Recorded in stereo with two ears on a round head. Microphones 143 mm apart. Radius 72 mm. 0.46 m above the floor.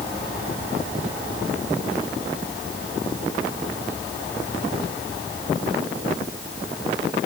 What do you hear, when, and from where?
Only background noise.